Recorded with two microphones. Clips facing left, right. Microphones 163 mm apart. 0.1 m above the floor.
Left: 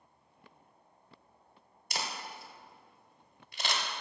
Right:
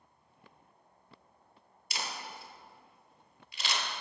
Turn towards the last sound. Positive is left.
turn(degrees=50)  # may be behind; listen again after turning